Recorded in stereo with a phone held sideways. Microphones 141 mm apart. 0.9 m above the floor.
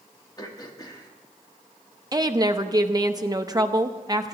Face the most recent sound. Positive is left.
turn(degrees=-25)  # may be behind; listen again after turning